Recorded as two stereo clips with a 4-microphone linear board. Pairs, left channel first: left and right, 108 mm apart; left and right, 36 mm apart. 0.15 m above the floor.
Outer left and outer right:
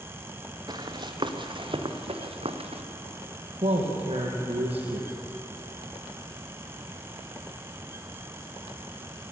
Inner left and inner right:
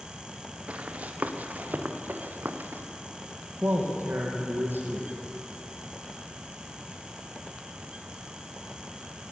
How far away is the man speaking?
About 5.5 m.